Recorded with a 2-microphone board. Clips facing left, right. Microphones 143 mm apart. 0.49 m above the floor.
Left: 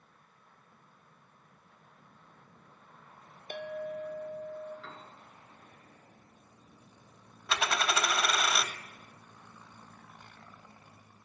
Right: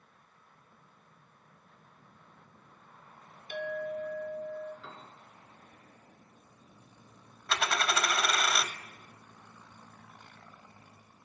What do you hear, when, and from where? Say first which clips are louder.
3.5 s a clink: right 2 dB; 45° left (ahead or behind), 1.0 m
4.8 s a piano: even; 15° right (ahead or behind), 1.9 m
7.5 s a dropped coin: even; 5° left (ahead or behind), 0.6 m